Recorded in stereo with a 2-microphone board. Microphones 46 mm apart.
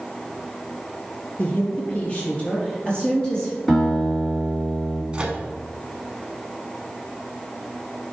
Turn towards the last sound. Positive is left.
turn(degrees=-25)  # may be behind; listen again after turning